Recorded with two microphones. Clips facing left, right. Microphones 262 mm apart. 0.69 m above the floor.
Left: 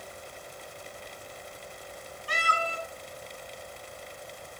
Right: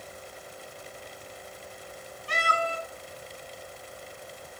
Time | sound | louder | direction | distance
2.3 | a cat meowing | right 3 dB | 25° right (ahead or behind) | 1.3 m